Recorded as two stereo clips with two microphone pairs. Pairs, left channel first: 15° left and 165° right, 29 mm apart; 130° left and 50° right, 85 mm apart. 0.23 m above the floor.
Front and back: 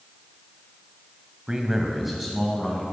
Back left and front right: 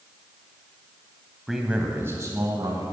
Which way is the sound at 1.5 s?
135° right.